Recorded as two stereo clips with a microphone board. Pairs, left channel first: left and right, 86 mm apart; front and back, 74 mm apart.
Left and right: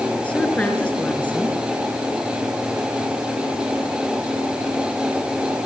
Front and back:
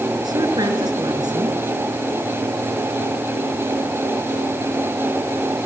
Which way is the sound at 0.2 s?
165° left.